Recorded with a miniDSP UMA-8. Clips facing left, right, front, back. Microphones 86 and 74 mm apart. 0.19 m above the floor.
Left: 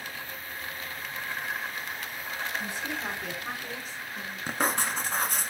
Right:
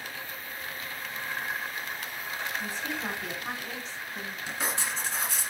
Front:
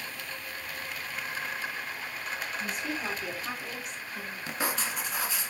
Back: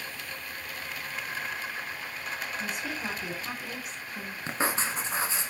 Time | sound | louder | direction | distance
2.6 | a woman speaking | even, front 1 dB | 90° left | 1.2 m
4.5 | writing | left 5 dB, back 3 dB | 125° left | 0.6 m